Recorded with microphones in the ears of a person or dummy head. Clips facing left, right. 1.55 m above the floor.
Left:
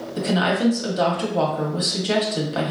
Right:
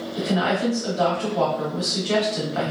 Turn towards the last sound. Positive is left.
turn(degrees=55)  # may be behind; listen again after turning